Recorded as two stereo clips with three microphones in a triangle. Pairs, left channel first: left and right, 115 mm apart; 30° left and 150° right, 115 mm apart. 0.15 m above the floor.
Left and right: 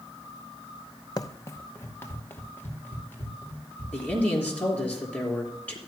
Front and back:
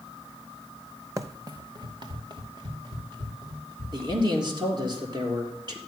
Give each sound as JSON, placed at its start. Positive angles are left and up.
{"t": 1.2, "sound": "running footsteps", "azimuth_deg": 145, "distance_m": 0.6}
{"t": 3.9, "sound": "a man speaking", "azimuth_deg": 165, "distance_m": 3.5}